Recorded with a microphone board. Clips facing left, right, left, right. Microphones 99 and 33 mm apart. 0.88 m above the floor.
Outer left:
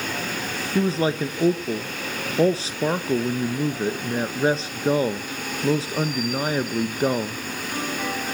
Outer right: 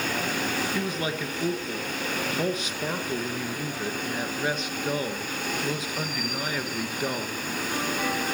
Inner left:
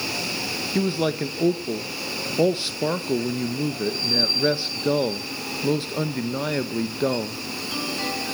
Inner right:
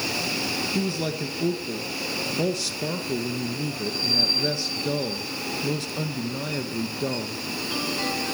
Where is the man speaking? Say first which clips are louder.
Outer left 7 dB, inner left 4 dB; 30° left (ahead or behind), 0.8 m.